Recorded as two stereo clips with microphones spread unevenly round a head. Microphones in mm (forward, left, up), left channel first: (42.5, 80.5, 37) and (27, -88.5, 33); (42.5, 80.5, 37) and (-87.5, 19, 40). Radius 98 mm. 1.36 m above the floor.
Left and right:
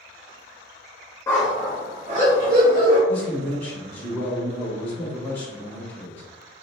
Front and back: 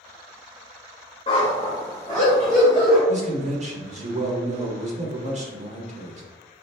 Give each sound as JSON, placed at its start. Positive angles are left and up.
{"t": 1.3, "sound": "a dog barking", "azimuth_deg": 25, "distance_m": 0.8}
{"t": 3.1, "sound": "a man speaking", "azimuth_deg": 165, "distance_m": 1.3}